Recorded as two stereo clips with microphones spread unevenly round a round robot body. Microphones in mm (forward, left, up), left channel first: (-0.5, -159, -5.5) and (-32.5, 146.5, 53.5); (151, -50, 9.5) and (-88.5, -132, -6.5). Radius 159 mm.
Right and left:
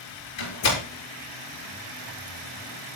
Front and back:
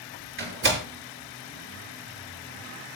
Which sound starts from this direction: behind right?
A door slam, at 0.4 s.